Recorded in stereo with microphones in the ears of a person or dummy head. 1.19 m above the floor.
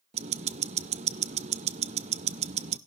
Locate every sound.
0.1 s ticking: 25° right (ahead or behind), 0.5 m